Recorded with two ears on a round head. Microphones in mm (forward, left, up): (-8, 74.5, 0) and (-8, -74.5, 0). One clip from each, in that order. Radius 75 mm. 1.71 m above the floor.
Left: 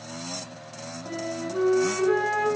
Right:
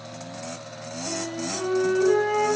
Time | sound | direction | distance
1.1 | a flute | 40° left (ahead or behind) | 1.2 m